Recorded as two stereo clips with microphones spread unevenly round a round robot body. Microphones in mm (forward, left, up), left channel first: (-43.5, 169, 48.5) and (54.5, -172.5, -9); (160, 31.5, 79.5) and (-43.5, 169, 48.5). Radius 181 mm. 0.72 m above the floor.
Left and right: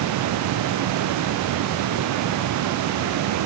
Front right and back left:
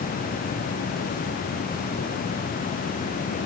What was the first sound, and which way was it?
Only background noise.